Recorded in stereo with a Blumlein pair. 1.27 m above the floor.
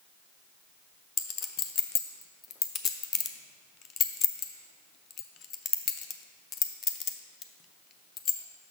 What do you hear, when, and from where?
1.2 s a clink: 25° left, 0.5 m